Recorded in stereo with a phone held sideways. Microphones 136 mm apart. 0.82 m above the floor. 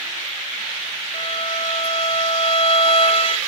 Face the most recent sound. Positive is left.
turn(degrees=45)  # may be behind; listen again after turning